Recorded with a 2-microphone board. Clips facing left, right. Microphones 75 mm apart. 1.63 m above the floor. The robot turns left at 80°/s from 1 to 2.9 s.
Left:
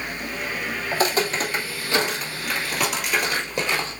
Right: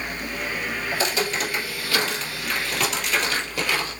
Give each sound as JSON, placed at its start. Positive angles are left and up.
{"t": 0.9, "sound": "footsteps", "side_deg": 40, "distance_m": 2.0}